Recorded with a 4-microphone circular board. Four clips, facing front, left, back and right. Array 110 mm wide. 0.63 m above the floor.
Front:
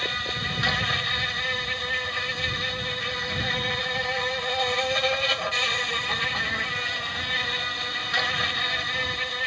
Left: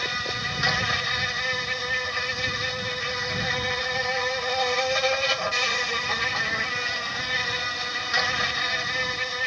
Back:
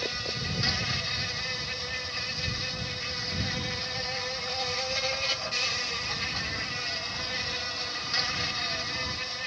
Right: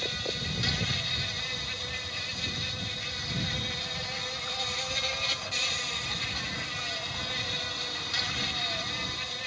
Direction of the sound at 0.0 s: 60° left.